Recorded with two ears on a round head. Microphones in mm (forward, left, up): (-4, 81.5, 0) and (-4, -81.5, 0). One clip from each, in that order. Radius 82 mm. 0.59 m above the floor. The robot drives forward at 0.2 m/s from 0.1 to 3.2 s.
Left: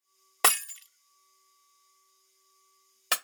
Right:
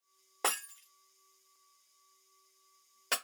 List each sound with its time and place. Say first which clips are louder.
0.4 s breaking glass: left 8 dB; 70° left (ahead or behind), 0.5 m; by 3.2 s 35° left (ahead or behind), 0.9 m